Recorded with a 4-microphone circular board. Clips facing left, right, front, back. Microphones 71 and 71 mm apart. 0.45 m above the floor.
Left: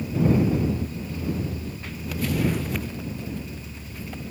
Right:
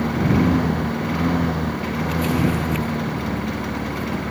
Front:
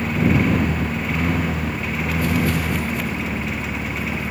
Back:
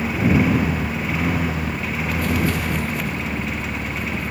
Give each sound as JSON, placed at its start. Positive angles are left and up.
{"t": 0.0, "sound": "a lawn mower", "azimuth_deg": -95}